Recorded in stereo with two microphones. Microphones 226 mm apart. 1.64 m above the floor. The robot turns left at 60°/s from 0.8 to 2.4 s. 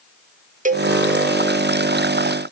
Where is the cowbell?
35° right (ahead or behind), 0.9 m; by 0.9 s 40° right (ahead or behind), 0.9 m.